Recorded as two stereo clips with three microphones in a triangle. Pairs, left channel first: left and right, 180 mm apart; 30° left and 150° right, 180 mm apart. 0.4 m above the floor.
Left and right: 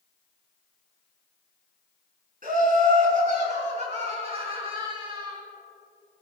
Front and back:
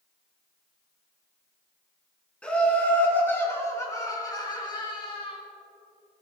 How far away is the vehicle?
No vehicle in this recording.